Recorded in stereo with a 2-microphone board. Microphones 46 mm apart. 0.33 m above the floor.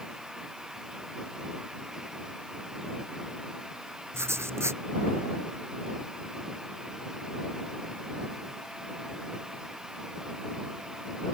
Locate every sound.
4.1 s writing: 70° right (ahead or behind)